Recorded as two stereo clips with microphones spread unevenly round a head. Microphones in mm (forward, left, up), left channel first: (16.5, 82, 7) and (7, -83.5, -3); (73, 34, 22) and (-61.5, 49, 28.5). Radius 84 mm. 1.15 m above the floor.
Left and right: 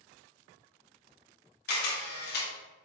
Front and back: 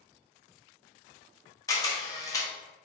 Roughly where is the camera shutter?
Ahead left.